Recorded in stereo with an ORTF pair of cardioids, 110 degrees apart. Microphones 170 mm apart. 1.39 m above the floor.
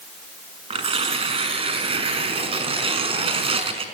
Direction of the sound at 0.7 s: 35° right.